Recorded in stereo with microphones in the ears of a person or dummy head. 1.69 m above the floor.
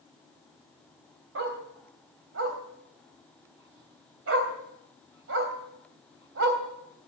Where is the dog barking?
65° right (ahead or behind), 3 m.